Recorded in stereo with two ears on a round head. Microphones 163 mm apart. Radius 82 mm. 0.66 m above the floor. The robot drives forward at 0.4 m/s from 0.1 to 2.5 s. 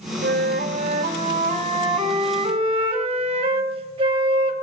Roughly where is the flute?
Right.